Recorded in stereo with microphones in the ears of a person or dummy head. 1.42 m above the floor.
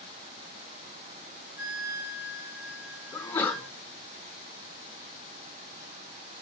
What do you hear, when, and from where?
1.6 s a flute: 85° right, 2 m
3.1 s a sneeze: 15° left (ahead or behind), 3.5 m